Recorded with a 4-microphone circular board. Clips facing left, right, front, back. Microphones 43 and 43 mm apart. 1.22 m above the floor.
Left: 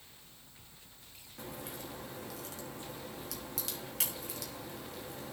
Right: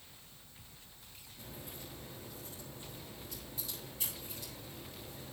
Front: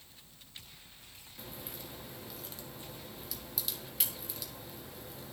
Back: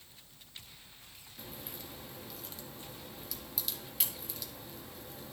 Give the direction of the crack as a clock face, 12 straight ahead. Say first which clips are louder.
Left 6 dB, front 1 dB; 9 o'clock.